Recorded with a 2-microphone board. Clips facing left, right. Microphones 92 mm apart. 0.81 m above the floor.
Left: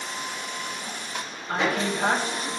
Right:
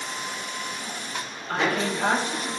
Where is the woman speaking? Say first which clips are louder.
Even; 20° left (ahead or behind), 1.5 m.